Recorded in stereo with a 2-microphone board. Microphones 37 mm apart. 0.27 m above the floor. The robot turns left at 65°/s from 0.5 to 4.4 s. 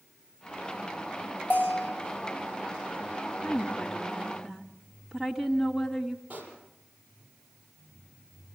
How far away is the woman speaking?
About 2.5 m.